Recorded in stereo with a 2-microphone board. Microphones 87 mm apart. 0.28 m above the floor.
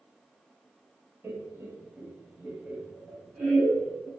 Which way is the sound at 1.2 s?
30° right (ahead or behind).